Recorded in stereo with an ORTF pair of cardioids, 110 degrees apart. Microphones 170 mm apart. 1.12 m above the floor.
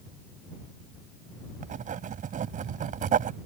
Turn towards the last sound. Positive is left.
turn(degrees=-50)